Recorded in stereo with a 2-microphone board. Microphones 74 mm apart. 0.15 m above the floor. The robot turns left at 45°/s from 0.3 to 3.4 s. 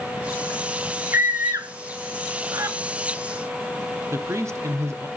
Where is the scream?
35° right (ahead or behind), 1.9 m; by 2.8 s 45° right (ahead or behind), 1.9 m.